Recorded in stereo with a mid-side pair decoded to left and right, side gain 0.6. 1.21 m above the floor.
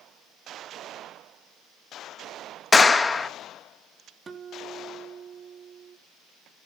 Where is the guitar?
30° right, 3 m.